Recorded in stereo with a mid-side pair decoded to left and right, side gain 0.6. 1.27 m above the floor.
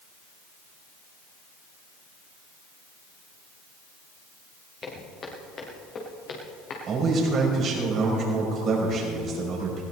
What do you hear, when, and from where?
4.8 s footsteps: 35° left, 6 m; by 6.8 s 50° left, 6 m
6.9 s a man speaking: 45° right, 5.5 m